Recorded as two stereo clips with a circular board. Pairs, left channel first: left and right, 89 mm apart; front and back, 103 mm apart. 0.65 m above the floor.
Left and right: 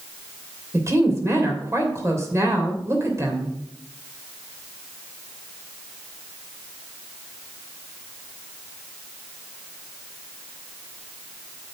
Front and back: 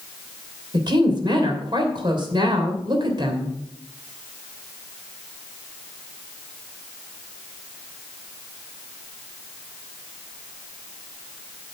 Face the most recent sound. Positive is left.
turn(degrees=-145)